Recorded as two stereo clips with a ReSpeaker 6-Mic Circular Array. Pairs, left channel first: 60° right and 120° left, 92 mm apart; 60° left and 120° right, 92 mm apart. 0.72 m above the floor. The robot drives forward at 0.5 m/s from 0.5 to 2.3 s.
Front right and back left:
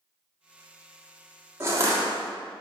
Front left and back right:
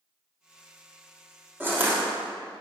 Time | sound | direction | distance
1.6 | crushing | 175° left | 1.5 m